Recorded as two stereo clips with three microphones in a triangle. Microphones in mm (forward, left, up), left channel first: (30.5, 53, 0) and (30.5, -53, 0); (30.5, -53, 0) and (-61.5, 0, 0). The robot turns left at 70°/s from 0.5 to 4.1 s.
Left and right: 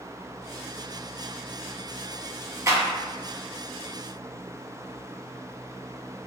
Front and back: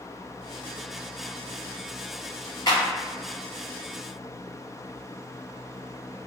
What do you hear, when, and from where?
2.7 s a clap: 50° right, 1.2 m; by 2.9 s 65° right, 1.2 m